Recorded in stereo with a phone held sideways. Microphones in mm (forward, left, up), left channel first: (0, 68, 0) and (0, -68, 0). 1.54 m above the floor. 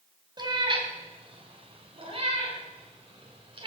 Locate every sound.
0.4 s a cat meowing: 30° right (ahead or behind), 1.6 m; by 3.7 s 35° right (ahead or behind), 3 m